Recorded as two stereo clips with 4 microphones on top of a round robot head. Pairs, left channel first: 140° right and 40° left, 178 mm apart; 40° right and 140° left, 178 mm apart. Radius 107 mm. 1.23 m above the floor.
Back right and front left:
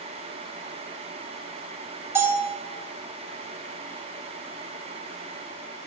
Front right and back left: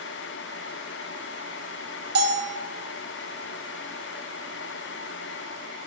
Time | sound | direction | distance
2.1 | a bell | 115° left | 1.0 m